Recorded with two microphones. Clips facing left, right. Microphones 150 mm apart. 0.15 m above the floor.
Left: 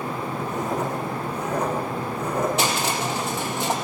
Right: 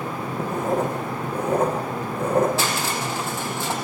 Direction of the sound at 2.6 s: 20° left (ahead or behind).